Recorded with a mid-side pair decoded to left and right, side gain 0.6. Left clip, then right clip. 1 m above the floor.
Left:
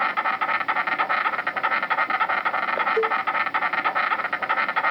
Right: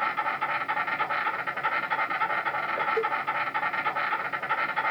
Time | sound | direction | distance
0.0 | an insect | 60° left | 0.9 m
3.0 | a cowbell | 55° left | 1.4 m